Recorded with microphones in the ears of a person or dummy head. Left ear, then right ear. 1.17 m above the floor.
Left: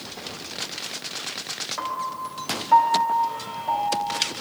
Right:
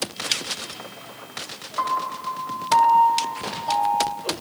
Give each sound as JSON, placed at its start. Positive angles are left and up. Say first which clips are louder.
{"t": 1.8, "sound": "a piano", "louder": "right 7 dB", "side_deg": 25, "distance_m": 3.5}